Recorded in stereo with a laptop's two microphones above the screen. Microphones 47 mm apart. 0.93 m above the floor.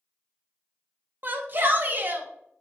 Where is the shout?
45° right (ahead or behind), 0.6 m.